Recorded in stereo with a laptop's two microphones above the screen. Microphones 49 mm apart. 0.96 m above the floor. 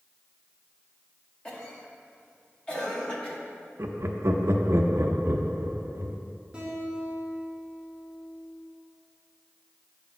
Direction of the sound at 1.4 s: 20° left (ahead or behind).